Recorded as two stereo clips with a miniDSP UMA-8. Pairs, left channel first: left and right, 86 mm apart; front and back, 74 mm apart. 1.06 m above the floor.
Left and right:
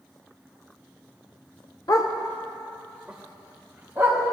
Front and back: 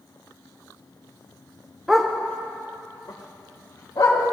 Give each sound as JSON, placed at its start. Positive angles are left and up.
{"t": 1.9, "sound": "a dog barking", "azimuth_deg": 100, "distance_m": 0.8}